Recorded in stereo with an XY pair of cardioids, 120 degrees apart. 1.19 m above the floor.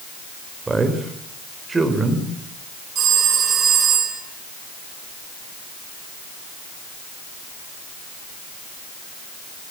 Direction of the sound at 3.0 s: 50° right.